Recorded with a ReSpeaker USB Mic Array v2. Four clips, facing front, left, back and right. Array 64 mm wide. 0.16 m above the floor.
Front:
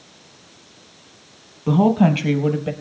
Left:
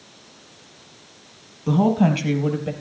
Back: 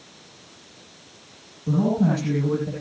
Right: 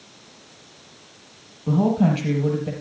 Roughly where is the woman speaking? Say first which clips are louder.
Left 1 dB, front 5 dB; ahead.